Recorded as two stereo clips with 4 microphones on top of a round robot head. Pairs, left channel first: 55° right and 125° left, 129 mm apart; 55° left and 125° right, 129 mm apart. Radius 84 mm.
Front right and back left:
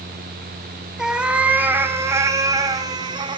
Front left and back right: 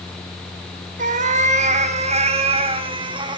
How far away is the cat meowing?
About 2.5 m.